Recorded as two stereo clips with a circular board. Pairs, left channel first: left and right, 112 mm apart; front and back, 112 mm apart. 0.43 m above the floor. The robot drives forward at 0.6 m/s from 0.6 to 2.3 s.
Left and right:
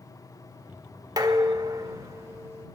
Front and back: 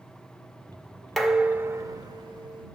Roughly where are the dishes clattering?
Right.